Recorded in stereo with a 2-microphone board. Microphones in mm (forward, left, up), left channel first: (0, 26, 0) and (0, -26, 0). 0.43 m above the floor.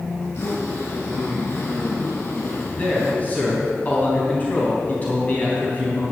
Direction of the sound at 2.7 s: 30° left (ahead or behind).